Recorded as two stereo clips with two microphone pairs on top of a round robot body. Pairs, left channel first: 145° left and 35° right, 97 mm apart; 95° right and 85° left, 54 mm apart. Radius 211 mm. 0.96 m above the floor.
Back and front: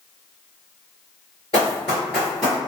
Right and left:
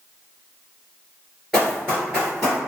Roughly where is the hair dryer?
No hair dryer in this recording.